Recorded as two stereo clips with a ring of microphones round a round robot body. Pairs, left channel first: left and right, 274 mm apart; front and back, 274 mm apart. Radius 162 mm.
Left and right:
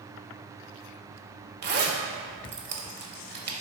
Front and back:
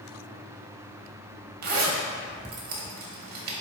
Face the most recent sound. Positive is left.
turn(degrees=-130)